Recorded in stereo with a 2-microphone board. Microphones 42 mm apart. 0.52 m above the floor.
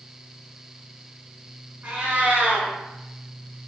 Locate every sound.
1.8 s a cat meowing: 50° right (ahead or behind), 1.0 m